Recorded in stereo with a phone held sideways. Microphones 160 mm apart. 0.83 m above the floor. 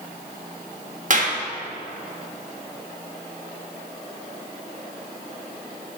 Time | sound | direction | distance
1.1 | a clap | 55° right (ahead or behind) | 1.3 m